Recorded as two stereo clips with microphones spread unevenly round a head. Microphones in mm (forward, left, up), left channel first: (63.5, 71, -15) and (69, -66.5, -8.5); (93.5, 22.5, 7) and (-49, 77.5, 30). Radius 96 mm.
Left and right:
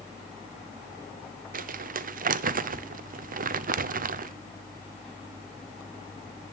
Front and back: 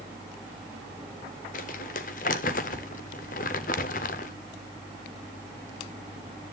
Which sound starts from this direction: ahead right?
Crumpling, at 1.5 s.